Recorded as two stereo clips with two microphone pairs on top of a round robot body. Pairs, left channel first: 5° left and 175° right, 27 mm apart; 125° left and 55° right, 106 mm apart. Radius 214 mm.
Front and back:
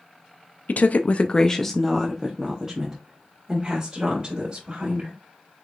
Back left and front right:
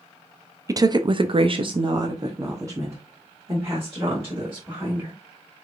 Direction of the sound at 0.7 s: Straight ahead.